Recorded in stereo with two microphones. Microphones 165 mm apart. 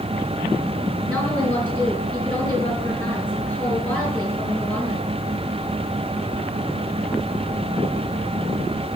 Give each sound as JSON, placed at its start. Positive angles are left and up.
{"t": 1.1, "sound": "a woman speaking", "side_deg": 15, "distance_m": 4.0}